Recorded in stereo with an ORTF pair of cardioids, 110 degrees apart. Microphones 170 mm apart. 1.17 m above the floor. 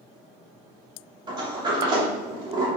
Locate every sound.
1.3 s a sliding door: 25° right, 3 m